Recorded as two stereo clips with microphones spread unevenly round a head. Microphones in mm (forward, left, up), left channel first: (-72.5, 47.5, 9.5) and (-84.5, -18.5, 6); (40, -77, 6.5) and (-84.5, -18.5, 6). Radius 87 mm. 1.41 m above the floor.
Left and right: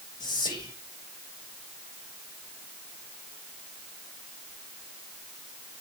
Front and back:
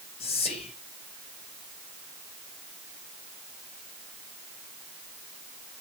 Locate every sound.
0.2 s whispering: 35° left, 1.0 m